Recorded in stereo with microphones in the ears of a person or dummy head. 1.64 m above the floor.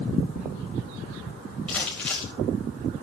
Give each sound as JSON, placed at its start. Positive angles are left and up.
{"t": 1.7, "sound": "crumpling", "side_deg": -5, "distance_m": 2.5}